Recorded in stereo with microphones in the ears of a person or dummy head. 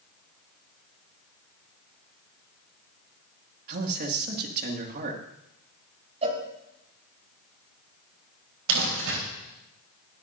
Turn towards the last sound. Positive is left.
turn(degrees=-75)  # may be behind; listen again after turning